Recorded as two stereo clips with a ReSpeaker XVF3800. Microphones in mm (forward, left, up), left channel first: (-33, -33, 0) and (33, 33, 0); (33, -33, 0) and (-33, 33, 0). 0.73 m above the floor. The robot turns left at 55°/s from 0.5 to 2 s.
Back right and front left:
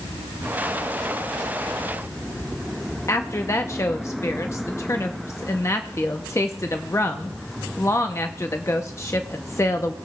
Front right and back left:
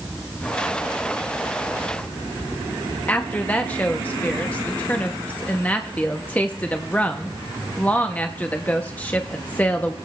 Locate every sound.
3.1 s a woman speaking: 105° right, 0.5 m